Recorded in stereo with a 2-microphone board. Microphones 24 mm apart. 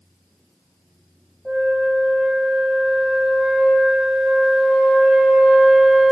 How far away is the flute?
About 0.6 m.